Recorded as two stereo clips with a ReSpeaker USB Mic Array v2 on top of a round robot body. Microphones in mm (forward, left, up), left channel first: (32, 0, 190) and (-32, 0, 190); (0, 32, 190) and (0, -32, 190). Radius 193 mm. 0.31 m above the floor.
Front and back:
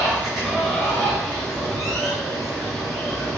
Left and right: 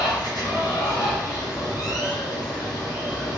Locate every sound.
0.0 s running water: 90° left, 1.8 m